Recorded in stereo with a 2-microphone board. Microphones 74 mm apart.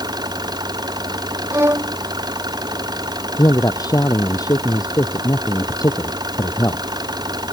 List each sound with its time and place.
0.0 s an engine running: 65° right (ahead or behind)
1.5 s a violin: 35° right (ahead or behind)
3.4 s a man speaking: 55° left (ahead or behind)